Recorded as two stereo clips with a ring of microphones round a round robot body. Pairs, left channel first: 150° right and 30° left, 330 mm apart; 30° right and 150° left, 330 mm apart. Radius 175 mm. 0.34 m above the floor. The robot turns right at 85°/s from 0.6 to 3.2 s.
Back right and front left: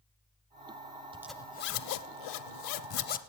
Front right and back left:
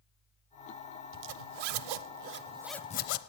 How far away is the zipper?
About 0.6 m.